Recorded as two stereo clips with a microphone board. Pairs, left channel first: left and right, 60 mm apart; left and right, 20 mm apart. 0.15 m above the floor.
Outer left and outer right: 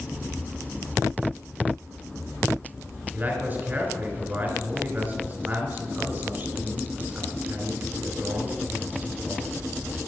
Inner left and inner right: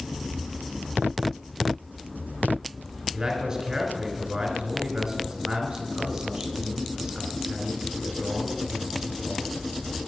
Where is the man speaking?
30° right (ahead or behind), 2 m.